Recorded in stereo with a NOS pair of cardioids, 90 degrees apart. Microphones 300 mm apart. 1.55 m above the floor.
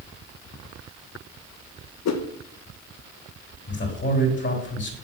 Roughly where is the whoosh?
Ahead left.